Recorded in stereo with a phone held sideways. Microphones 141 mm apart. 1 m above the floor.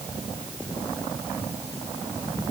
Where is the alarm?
I don't hear an alarm.